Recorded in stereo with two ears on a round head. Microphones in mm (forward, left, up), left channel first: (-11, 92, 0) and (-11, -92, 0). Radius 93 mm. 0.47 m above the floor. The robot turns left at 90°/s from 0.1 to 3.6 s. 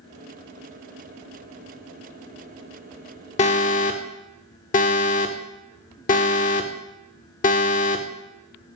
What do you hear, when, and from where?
3.4 s an alarm: 35° left (ahead or behind), 0.5 m; by 8.1 s 40° left (ahead or behind), 0.5 m